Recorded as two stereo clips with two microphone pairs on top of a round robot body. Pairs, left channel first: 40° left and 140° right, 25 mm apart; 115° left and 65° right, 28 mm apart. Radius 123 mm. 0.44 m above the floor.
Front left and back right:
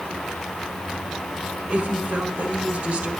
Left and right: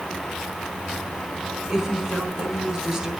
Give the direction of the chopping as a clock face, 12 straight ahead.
No chopping in this recording.